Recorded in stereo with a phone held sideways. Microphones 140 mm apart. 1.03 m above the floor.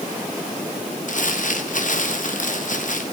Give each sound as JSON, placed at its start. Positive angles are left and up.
{"t": 1.1, "sound": "crumpling", "side_deg": 65, "distance_m": 1.6}